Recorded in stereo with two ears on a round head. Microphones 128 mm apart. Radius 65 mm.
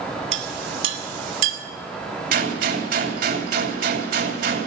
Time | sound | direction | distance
0.3 | a clink | 45° right (ahead or behind) | 2.5 m
2.3 | a gunshot | 60° right (ahead or behind) | 2.5 m